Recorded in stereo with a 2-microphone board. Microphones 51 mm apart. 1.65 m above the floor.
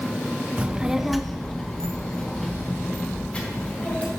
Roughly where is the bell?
I don't hear a bell.